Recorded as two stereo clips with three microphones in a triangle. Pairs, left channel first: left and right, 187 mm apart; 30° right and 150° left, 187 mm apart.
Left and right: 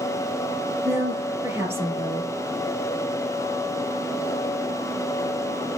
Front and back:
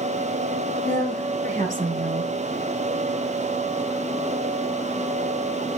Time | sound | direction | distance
0.8 | a woman speaking | 165° right | 5.5 m